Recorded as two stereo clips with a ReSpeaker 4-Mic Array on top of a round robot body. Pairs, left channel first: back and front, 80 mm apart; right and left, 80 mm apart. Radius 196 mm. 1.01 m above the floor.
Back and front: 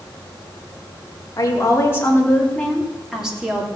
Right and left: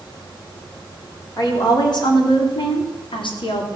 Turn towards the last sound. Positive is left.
turn(degrees=-75)